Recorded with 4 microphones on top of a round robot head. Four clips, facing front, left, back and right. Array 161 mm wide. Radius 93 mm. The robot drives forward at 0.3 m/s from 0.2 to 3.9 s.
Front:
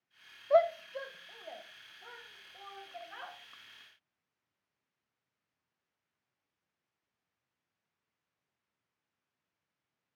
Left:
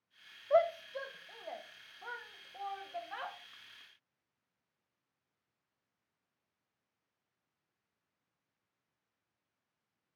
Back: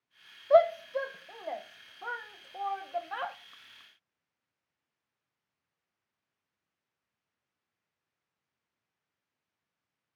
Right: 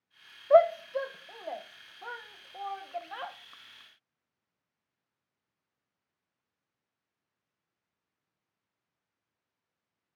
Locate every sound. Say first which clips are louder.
0.5 s a shout: right 8 dB, back 4 dB; 115° right, 0.5 m; by 3.4 s 160° right, 1.1 m